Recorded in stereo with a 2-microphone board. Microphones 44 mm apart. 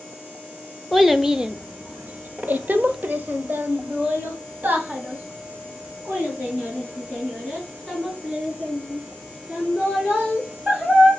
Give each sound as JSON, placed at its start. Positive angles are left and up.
{"t": 0.9, "sound": "a child speaking", "side_deg": 0, "distance_m": 0.6}